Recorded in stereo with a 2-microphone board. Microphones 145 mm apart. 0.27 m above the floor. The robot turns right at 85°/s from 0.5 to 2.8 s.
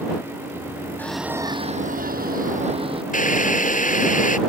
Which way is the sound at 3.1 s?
65° left (ahead or behind).